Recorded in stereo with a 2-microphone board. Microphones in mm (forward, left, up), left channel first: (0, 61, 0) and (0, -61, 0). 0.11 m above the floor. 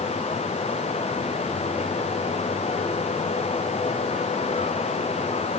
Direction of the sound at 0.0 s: 70° left (ahead or behind).